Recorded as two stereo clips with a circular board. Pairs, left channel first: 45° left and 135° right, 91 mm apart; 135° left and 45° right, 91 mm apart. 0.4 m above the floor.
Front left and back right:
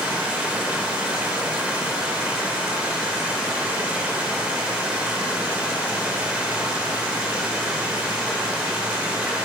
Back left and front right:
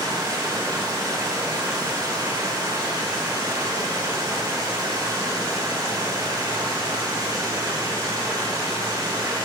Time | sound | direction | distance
0.0 | running water | 60° right | 1.2 m